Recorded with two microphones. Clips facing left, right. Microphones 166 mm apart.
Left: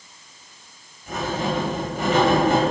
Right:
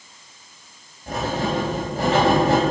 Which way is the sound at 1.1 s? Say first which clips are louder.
Right 1 dB; 35° right (ahead or behind).